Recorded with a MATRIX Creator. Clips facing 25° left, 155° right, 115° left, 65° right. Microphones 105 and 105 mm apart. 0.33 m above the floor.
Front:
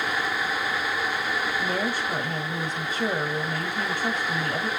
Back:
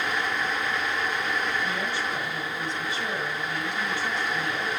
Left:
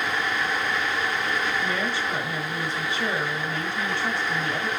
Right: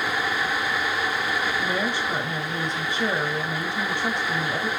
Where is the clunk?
No clunk in this recording.